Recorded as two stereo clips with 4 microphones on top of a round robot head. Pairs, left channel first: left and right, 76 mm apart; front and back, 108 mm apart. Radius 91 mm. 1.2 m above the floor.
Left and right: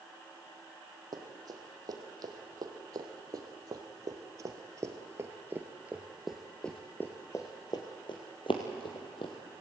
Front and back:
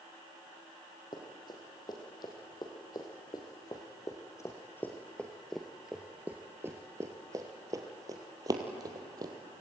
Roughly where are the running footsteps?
Ahead right.